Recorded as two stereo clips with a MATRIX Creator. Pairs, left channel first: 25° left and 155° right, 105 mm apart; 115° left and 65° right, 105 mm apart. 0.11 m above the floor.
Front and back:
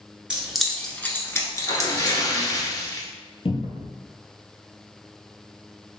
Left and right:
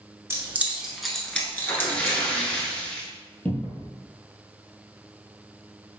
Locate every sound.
0.3 s keys jangling: 90° right, 0.9 m; by 2.2 s 60° left, 1.3 m
1.7 s a splash: 40° left, 0.9 m
3.5 s a cupboard door: 40° left, 0.9 m